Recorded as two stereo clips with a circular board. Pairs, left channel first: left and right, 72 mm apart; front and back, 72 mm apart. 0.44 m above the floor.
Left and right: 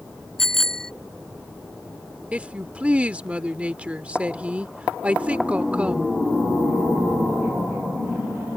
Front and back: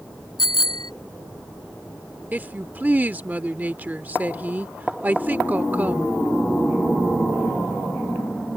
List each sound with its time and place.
0.4 s a bicycle bell: 5° left
2.3 s a woman speaking: 145° right